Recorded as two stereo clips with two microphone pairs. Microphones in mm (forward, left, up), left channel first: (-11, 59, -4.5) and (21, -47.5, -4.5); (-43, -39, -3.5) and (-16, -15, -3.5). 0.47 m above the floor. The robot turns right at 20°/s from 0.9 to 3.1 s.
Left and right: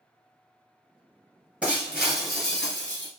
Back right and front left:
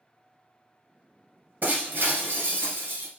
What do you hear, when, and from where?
1.6 s breaking glass: 5° left, 1.7 m; by 3.1 s 35° left, 1.7 m